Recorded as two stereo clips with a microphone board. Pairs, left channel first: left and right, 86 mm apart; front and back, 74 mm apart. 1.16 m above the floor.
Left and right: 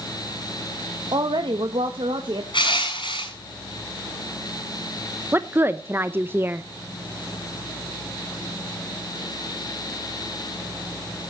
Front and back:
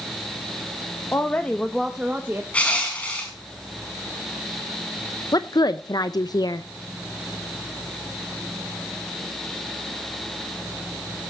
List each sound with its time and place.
1.1 s a woman speaking: 60° right, 1.1 m; by 2.4 s 120° right, 1.2 m
2.5 s crushing: 70° left, 6.5 m
5.3 s a woman speaking: 25° right, 0.7 m